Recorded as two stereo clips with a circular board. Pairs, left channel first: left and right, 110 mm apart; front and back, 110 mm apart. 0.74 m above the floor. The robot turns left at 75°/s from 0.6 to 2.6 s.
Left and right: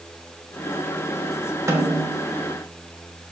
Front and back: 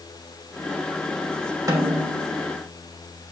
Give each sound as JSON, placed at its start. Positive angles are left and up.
{"t": 1.7, "sound": "a snare drum", "azimuth_deg": -140, "distance_m": 1.1}